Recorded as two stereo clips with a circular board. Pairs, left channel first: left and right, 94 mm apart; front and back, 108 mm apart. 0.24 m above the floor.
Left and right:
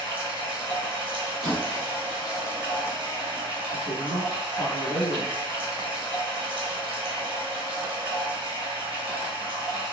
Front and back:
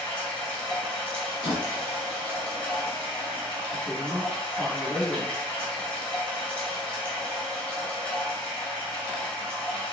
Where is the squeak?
165° right, 1.4 m.